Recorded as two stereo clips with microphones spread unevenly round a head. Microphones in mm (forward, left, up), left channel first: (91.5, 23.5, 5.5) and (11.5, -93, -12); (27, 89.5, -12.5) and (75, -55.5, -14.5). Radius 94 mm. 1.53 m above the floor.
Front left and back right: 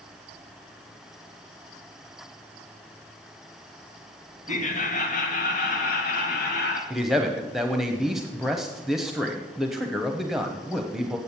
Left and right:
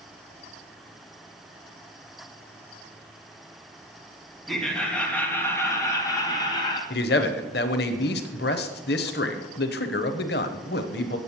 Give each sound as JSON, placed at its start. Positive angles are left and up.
{"t": 4.5, "sound": "laughter", "azimuth_deg": 20, "distance_m": 2.5}
{"t": 6.9, "sound": "a man speaking", "azimuth_deg": 145, "distance_m": 0.9}